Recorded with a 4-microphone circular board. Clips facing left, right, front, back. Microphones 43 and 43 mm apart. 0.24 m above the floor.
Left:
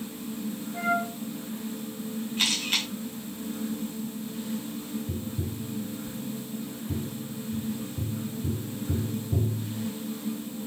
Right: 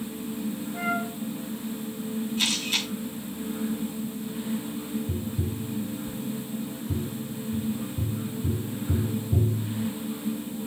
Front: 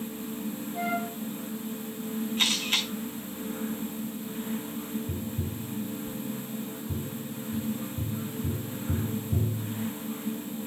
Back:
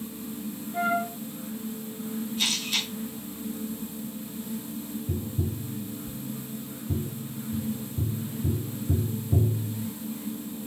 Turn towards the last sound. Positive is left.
turn(degrees=175)